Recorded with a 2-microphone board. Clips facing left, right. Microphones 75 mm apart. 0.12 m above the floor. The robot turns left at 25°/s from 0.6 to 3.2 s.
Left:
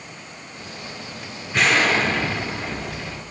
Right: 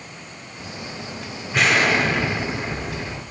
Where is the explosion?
5° right, 2 m; by 3.2 s 45° right, 2 m.